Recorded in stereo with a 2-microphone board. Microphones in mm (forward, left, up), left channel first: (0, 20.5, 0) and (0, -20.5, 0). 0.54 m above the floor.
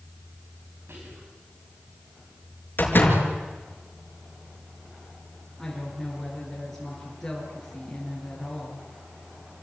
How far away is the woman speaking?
About 8 m.